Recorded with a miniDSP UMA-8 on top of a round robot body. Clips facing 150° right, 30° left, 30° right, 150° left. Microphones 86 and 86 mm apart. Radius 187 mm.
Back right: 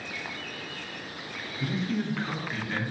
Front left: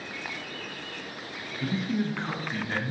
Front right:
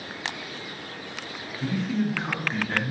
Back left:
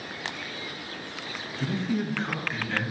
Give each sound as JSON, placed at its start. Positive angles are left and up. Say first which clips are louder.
{"t": 1.6, "sound": "a man speaking", "louder": "front left 1 dB, front right 2 dB", "azimuth_deg": 125, "distance_m": 0.8}